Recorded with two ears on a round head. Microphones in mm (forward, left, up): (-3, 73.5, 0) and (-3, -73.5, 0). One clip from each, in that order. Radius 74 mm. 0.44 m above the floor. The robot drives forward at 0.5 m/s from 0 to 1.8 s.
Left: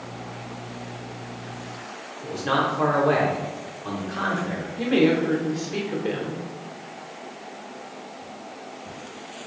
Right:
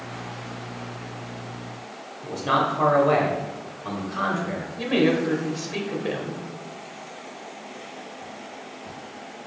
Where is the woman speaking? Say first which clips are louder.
Left 1 dB; 5° right (ahead or behind), 0.8 m.